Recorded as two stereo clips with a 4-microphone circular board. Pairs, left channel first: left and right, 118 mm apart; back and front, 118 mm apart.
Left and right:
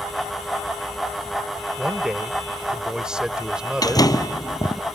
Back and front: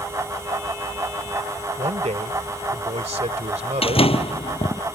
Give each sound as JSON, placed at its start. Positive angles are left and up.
{"t": 1.8, "sound": "a man speaking", "azimuth_deg": -5}
{"t": 3.8, "sound": "a door slam", "azimuth_deg": 145}